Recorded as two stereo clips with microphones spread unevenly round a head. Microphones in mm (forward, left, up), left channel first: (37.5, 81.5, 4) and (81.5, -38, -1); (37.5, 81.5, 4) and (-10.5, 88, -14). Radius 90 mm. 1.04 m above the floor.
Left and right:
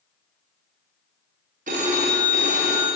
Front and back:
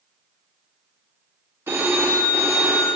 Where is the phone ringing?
115° right, 0.9 m.